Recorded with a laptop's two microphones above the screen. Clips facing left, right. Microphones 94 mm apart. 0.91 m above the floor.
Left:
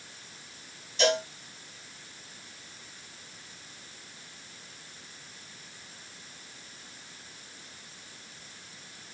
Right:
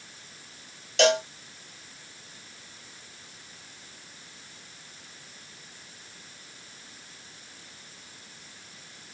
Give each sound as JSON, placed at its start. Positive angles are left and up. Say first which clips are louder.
{"t": 1.0, "sound": "a cowbell", "louder": "right 4 dB", "side_deg": -75, "distance_m": 1.1}